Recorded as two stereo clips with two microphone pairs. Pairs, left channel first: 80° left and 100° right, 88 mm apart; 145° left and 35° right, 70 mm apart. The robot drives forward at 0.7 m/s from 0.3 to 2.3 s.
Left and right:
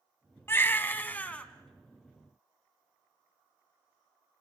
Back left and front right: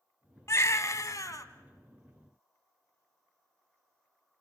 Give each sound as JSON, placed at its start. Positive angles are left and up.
{"t": 0.5, "sound": "a baby crying", "azimuth_deg": 130, "distance_m": 1.2}